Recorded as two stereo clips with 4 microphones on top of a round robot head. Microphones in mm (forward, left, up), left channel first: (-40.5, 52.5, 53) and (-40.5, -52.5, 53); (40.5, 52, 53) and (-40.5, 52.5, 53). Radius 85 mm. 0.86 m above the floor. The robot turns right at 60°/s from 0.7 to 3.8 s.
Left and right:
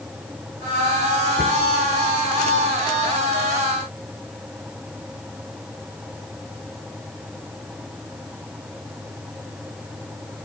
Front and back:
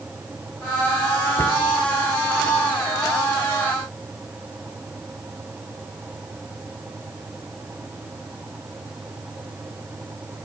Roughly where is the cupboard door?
Ahead left.